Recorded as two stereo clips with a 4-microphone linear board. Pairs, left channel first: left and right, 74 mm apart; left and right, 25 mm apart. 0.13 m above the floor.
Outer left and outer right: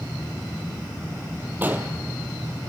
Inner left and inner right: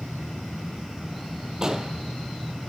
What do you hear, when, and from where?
1.6 s an explosion: 25° right (ahead or behind), 1.0 m